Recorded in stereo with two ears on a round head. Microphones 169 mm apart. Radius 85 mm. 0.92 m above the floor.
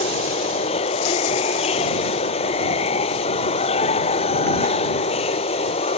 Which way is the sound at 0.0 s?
30° left (ahead or behind).